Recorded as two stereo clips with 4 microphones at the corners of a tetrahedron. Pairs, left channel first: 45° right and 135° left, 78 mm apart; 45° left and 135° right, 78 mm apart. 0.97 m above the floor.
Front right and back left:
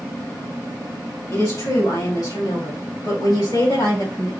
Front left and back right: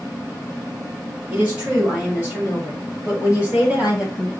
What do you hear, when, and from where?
1.3 s a woman speaking: 65° right, 1.6 m; by 4.3 s 55° right, 4 m